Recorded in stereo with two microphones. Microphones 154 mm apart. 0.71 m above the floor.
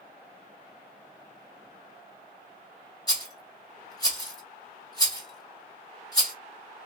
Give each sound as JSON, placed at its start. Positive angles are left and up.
{"t": 3.1, "sound": "a rattle", "side_deg": 25, "distance_m": 1.5}